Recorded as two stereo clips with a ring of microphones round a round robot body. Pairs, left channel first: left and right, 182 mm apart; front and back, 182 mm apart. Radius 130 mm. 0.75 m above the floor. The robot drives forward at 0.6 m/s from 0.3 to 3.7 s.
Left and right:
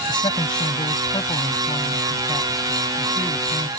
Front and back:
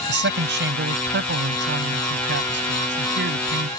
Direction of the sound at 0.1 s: 165° left.